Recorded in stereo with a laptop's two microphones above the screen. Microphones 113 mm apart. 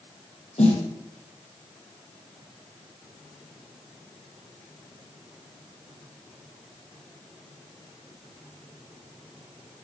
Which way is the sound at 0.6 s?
75° left (ahead or behind).